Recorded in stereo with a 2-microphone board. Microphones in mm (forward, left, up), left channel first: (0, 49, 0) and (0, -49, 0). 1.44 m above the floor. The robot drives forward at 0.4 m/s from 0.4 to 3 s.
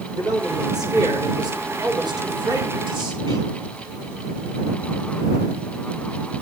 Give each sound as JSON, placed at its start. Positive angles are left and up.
{"t": 0.1, "sound": "a man speaking", "side_deg": -45, "distance_m": 5.0}